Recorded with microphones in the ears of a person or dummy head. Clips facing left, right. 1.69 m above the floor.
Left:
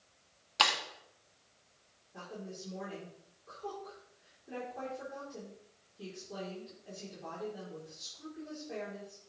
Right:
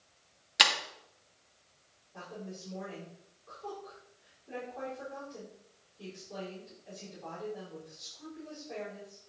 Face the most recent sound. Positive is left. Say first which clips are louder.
# right 1 dB
turn(degrees=20)  # may be behind; listen again after turning